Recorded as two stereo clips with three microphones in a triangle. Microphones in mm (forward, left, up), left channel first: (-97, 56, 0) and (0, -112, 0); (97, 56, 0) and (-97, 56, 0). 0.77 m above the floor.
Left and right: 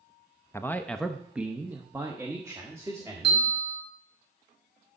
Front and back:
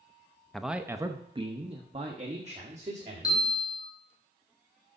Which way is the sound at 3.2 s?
70° right.